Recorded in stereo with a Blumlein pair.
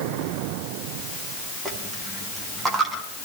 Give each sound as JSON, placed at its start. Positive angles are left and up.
{"t": 1.6, "sound": "a dropped coin", "azimuth_deg": -10, "distance_m": 4.5}